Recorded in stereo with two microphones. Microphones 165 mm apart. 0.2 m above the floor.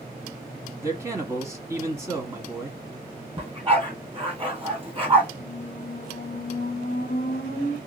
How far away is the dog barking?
About 1.6 m.